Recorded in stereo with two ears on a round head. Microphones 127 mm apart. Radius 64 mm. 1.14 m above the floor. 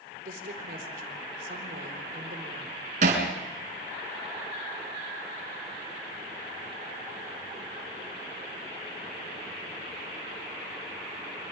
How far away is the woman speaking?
About 3.5 m.